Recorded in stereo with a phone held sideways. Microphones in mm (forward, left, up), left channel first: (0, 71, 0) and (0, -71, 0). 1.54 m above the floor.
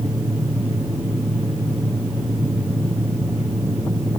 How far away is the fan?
About 1.4 m.